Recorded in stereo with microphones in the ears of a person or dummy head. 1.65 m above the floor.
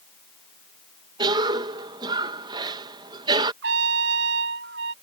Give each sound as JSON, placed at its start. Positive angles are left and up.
{"t": 1.2, "sound": "a cough", "side_deg": -25}
{"t": 3.6, "sound": "a trumpet", "side_deg": -70}